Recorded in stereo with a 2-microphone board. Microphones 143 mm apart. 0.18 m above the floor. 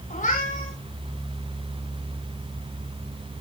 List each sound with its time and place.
0.1 s a cat meowing: 65° left (ahead or behind), 6 m